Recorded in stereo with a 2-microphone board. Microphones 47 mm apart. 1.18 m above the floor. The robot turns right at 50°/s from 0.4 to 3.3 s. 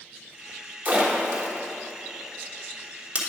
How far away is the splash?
About 1.2 m.